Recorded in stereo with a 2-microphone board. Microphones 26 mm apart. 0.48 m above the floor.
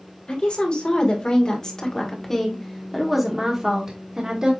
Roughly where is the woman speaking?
Left.